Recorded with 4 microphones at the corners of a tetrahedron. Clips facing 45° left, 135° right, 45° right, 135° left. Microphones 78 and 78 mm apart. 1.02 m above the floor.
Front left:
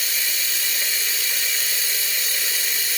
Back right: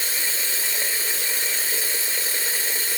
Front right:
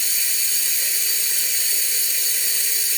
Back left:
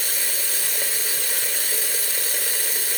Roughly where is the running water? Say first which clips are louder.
Even, back left 3 dB; behind.